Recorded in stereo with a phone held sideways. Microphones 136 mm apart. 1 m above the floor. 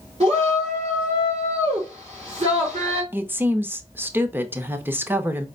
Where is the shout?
55° right (ahead or behind), 3 m.